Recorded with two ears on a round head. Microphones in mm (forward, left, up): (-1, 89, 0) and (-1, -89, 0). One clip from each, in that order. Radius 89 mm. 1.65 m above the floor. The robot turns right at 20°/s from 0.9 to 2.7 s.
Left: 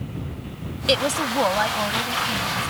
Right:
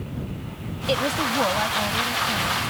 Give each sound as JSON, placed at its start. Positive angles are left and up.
{"t": 0.9, "sound": "a woman speaking", "azimuth_deg": 125}